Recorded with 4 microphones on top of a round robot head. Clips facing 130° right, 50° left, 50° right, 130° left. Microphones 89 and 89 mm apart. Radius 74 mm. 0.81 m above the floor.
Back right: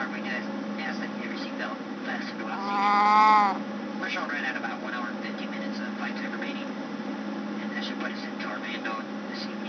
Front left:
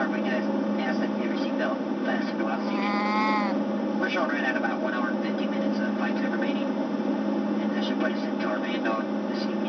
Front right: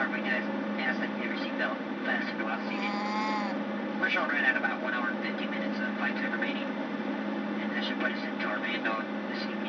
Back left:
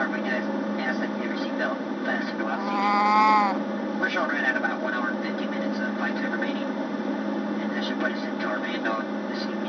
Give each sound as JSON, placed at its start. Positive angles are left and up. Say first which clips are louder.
{"t": 0.0, "sound": "an aircraft", "louder": "front left 7 dB, back left 4 dB", "azimuth_deg": 70}
{"t": 2.5, "sound": "a cat meowing", "louder": "back right 3 dB, back left 9 dB", "azimuth_deg": 175}